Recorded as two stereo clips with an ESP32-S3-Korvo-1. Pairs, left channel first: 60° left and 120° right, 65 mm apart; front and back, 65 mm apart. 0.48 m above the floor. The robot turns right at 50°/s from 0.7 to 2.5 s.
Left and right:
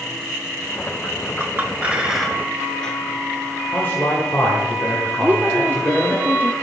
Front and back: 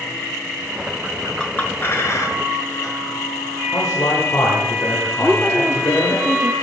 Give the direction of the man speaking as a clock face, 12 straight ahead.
12 o'clock.